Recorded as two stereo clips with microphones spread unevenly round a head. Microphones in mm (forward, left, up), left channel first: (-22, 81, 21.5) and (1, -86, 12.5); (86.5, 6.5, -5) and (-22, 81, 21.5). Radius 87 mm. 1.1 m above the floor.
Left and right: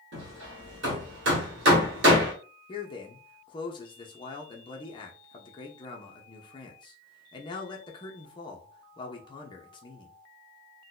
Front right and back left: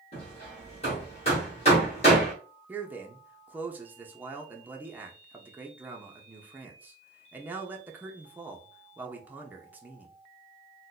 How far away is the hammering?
About 1.4 m.